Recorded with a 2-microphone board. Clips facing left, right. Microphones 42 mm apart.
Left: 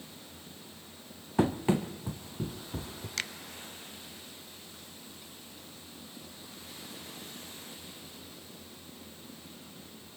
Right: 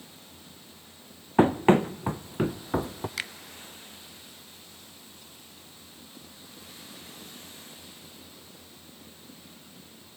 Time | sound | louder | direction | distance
1.4 | running footsteps | right 8 dB | 35° right (ahead or behind) | 1.0 m
3.2 | a finger snap | even | 10° right (ahead or behind) | 0.9 m